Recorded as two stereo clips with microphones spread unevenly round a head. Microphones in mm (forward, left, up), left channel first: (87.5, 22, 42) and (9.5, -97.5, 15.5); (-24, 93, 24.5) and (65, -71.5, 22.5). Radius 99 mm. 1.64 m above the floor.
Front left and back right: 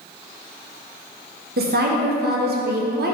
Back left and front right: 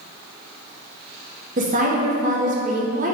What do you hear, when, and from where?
1.6 s a woman speaking: 115° right, 1.2 m